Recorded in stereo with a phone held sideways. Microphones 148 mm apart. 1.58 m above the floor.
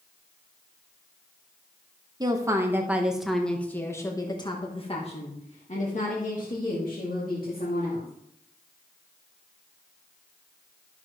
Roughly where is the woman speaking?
Right.